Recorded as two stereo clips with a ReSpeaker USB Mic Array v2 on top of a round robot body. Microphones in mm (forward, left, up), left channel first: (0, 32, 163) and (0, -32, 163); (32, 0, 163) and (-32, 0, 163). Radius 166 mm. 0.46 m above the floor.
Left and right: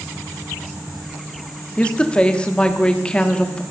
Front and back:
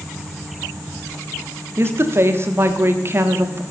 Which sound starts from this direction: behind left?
A woman speaking, at 1.8 s.